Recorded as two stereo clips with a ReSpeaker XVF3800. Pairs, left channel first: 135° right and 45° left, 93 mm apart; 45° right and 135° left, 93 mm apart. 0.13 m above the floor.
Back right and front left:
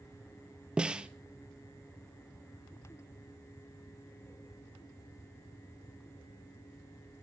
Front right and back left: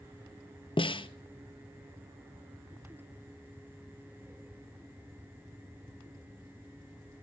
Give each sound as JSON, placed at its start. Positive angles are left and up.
{"t": 0.8, "sound": "a snare drum", "azimuth_deg": -35, "distance_m": 1.0}